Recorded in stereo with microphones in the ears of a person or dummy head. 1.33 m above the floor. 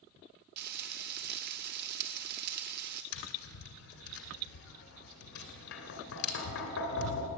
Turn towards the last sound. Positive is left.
turn(degrees=65)  # may be behind; listen again after turning